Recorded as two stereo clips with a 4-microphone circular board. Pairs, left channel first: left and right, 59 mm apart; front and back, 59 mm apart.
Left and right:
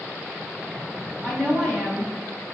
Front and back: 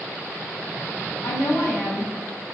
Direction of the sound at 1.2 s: 20° left.